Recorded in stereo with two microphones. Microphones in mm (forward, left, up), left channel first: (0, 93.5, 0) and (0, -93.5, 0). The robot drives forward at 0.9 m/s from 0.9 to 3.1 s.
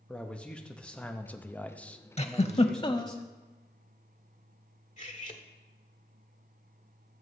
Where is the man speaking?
5° left (ahead or behind), 0.8 m.